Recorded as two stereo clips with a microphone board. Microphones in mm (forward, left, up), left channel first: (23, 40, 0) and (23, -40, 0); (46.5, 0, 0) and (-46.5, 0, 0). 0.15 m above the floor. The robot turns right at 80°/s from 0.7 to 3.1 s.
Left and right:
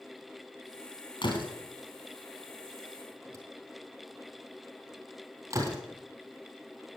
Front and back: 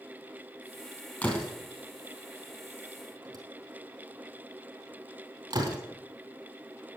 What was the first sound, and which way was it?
A door slam, 70° left.